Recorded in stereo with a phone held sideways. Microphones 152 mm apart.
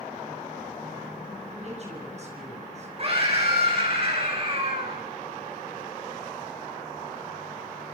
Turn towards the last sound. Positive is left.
turn(degrees=-40)  # may be behind; listen again after turning